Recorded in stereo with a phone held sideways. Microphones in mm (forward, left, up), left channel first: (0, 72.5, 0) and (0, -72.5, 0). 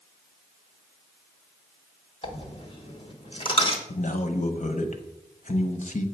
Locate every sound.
2.2 s a dropped coin: 35° left (ahead or behind), 1.1 m
3.9 s a man speaking: 55° left (ahead or behind), 0.8 m